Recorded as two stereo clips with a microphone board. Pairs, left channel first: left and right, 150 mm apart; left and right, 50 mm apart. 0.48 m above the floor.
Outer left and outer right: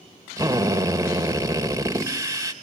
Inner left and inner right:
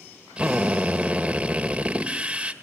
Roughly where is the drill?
Right.